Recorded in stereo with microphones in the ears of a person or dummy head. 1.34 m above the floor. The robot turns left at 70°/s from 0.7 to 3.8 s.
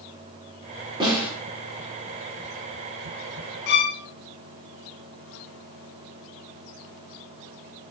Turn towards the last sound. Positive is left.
turn(degrees=55)  # may be behind; listen again after turning